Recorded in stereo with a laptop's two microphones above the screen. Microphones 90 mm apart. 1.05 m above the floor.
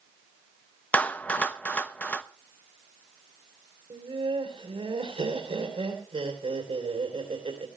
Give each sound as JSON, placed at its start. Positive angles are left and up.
{"t": 0.9, "sound": "a clap", "side_deg": 20, "distance_m": 0.8}
{"t": 3.9, "sound": "laughter", "side_deg": -85, "distance_m": 3.5}